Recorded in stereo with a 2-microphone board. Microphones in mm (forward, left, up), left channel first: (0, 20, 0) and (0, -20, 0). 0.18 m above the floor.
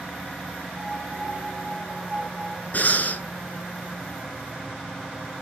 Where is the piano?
20° right (ahead or behind), 2 m.